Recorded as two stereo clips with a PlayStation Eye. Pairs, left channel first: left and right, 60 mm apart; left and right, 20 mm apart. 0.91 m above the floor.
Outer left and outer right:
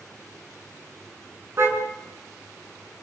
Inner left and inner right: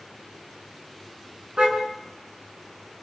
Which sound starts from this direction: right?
A car horn, at 1.6 s.